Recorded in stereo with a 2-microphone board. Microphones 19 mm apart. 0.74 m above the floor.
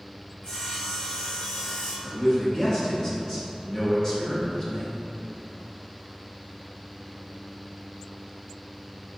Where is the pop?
I don't hear a pop.